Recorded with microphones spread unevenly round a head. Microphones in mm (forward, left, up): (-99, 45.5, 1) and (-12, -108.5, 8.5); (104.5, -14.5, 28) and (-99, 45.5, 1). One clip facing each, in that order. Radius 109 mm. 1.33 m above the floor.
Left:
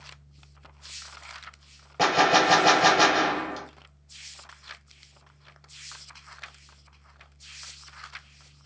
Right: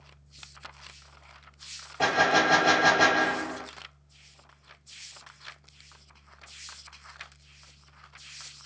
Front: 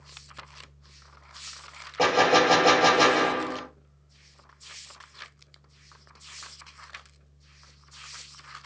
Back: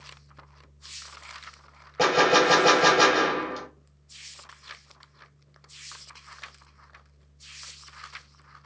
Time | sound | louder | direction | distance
2.0 | a gunshot | left 3 dB, even | 85° left | 0.8 m